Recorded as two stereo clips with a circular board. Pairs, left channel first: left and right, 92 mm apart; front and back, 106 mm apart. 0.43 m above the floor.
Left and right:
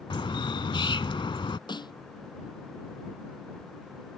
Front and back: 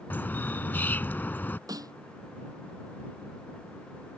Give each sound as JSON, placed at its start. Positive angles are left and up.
{"t": 0.1, "sound": "a bird", "azimuth_deg": 70}
{"t": 1.7, "sound": "a snare drum", "azimuth_deg": 125}